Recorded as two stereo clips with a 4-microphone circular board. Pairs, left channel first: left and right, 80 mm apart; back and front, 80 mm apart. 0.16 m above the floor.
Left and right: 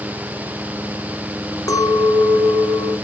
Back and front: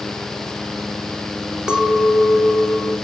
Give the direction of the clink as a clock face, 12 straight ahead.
10 o'clock.